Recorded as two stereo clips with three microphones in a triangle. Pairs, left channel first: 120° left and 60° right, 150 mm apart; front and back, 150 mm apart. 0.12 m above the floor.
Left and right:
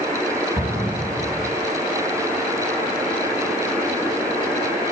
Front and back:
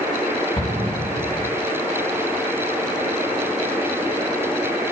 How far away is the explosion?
About 3 m.